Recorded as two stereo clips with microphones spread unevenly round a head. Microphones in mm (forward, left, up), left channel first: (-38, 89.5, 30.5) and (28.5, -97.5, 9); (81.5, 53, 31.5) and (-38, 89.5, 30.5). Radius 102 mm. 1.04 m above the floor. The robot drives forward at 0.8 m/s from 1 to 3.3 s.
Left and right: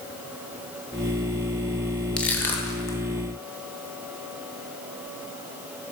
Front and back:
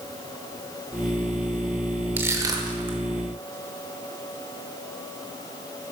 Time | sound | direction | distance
2.2 | crushing | 155° right | 0.8 m